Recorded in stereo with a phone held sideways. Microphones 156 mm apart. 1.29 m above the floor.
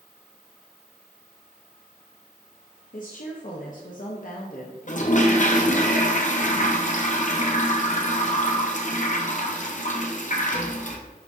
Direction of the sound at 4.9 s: 55° left (ahead or behind).